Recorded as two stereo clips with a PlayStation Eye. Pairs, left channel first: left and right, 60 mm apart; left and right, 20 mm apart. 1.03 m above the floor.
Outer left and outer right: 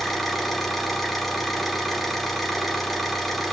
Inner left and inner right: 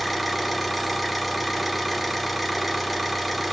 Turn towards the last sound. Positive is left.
turn(degrees=0)  # may be behind; listen again after turning